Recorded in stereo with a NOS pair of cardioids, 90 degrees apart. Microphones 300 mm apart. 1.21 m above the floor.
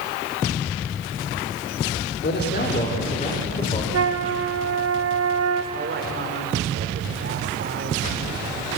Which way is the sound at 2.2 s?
35° left.